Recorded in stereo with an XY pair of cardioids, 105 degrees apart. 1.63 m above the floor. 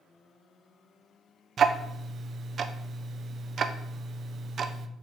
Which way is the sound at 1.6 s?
55° right.